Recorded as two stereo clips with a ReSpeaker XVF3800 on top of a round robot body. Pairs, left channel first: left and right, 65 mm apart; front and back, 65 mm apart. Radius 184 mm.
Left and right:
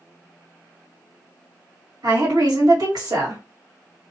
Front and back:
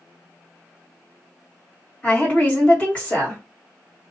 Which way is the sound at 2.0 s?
70° right.